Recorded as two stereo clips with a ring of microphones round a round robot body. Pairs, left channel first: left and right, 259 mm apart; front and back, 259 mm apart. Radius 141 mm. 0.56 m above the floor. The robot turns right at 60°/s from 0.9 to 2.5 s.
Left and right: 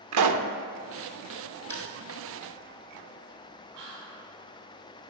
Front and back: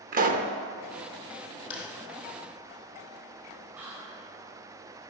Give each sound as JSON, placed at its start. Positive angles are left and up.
{"t": 0.1, "sound": "a pop", "azimuth_deg": -120, "distance_m": 0.7}
{"t": 1.7, "sound": "crushing", "azimuth_deg": 5, "distance_m": 3.5}
{"t": 3.7, "sound": "whispering", "azimuth_deg": -95, "distance_m": 5.5}